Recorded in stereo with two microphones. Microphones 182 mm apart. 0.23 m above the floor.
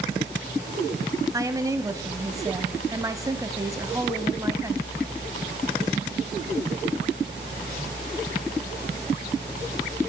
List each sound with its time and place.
1.3 s a woman speaking: 15° right (ahead or behind), 1.1 m